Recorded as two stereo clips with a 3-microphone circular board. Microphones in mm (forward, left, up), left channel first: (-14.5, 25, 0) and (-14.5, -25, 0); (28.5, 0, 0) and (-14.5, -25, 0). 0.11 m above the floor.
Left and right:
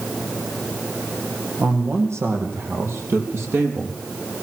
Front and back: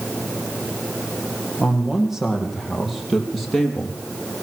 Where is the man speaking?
70° right, 5 m; by 4.0 s 45° right, 4 m.